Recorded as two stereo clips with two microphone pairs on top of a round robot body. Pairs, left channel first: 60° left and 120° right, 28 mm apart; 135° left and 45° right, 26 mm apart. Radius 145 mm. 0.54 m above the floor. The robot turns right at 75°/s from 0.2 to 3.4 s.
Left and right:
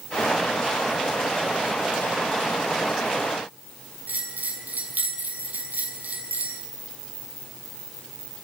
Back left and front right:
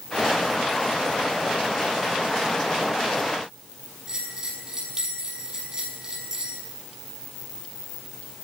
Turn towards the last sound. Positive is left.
turn(degrees=-110)